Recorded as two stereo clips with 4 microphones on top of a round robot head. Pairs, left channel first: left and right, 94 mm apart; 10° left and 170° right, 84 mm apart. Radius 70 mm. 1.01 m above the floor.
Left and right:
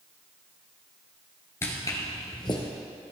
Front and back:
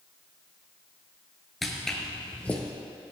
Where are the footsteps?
100° left, 1.0 m; by 2.6 s 75° left, 1.3 m.